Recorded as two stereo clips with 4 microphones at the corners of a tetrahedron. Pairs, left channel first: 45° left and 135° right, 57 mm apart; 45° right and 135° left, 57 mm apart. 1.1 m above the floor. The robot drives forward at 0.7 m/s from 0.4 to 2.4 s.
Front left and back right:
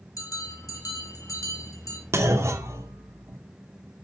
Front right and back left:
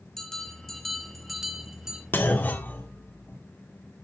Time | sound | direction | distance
0.2 | a bell | 40° left | 3 m
2.1 | a clunk | 95° right | 2 m